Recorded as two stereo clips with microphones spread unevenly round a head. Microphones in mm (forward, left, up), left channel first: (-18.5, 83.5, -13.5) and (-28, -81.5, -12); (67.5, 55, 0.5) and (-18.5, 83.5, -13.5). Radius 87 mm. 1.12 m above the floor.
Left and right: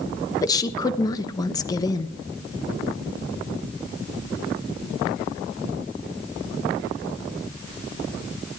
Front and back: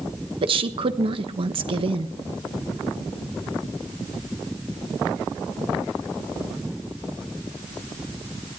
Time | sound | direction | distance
0.4 | a woman speaking | 155° left | 1.0 m